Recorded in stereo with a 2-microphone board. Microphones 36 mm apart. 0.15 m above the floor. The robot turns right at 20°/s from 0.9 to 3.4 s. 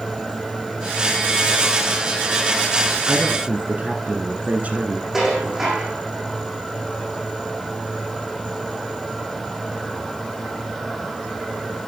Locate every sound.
3.1 s a woman speaking: 45° right (ahead or behind), 1.6 m
5.1 s dishes clattering: 15° right (ahead or behind), 5.5 m